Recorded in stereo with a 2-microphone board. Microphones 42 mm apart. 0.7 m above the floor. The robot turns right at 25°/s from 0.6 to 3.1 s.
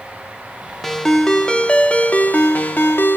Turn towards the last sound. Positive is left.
turn(degrees=65)